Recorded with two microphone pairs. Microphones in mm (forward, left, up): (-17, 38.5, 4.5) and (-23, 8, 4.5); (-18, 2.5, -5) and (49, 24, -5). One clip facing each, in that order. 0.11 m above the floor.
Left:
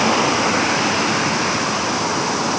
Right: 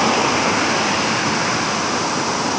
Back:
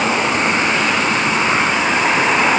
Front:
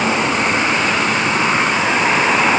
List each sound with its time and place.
Only background noise.